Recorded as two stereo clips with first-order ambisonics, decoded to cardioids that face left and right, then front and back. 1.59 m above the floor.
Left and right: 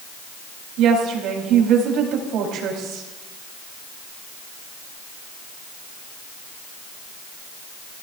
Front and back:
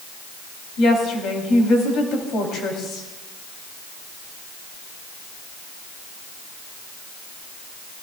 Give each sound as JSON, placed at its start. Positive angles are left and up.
{"t": 0.8, "sound": "a woman speaking", "azimuth_deg": -50, "distance_m": 4.5}